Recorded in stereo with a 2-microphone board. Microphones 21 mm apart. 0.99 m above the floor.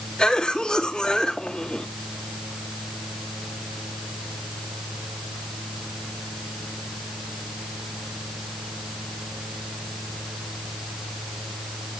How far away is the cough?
About 2 m.